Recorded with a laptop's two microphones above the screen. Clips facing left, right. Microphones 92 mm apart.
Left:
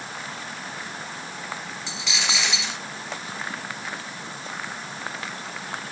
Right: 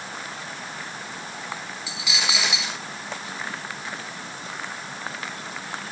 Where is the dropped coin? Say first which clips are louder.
Right 1 dB; 5° right (ahead or behind), 1.8 m.